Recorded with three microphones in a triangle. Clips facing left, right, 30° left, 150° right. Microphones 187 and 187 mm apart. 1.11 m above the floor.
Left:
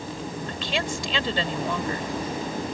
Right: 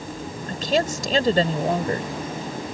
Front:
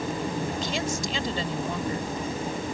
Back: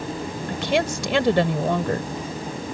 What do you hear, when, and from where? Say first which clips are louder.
0.5 s a woman speaking: right 9 dB, back 6 dB; 135° right